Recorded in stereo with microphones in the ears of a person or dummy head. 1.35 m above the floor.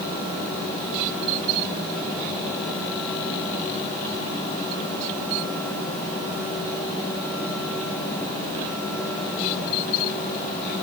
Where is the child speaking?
No child speaking in this recording.